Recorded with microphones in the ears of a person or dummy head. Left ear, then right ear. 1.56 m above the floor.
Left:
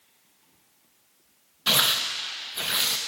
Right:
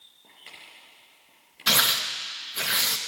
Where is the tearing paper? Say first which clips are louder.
Even; 5° right (ahead or behind), 0.6 m.